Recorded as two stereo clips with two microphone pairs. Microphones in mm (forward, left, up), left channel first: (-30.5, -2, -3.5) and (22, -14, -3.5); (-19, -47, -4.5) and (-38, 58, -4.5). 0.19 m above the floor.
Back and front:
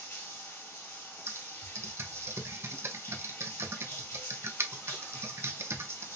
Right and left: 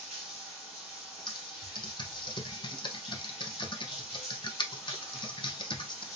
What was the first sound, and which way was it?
Running water, straight behind.